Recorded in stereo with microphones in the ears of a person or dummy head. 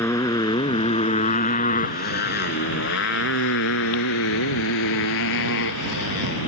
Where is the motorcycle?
15° left (ahead or behind); by 6.5 s 85° left.